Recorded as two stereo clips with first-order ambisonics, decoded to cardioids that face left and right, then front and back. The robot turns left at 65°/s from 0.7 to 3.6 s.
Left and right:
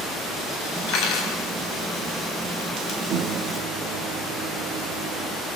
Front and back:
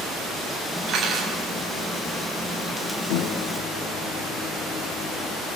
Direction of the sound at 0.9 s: 125° left.